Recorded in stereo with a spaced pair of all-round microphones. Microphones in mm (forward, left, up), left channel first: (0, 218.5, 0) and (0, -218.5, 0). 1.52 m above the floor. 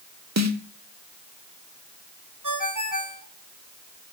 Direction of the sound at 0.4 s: 40° right (ahead or behind).